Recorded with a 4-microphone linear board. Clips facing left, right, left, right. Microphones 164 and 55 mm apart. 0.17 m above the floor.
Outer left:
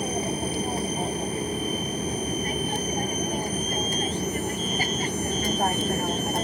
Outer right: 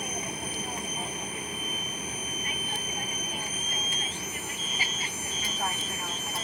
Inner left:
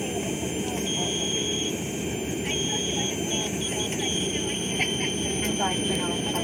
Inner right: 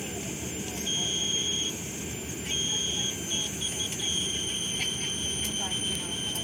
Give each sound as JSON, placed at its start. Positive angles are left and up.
{"t": 0.0, "sound": "an aircraft", "side_deg": 35}